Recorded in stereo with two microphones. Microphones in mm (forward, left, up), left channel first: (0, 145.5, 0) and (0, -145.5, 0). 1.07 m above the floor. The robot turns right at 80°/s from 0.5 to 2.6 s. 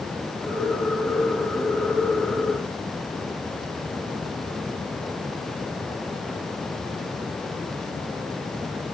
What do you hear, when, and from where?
Only background noise.